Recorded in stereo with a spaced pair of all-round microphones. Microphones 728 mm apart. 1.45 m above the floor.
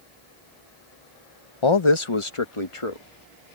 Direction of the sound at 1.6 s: 40° left (ahead or behind).